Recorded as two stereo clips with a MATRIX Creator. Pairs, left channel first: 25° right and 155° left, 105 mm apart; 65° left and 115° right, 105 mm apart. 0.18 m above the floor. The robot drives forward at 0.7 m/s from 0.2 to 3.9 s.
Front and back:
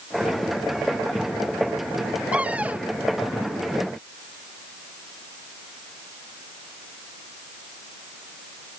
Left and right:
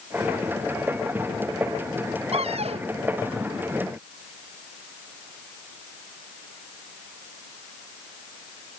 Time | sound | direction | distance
2.3 | a cupboard door | 125° right | ?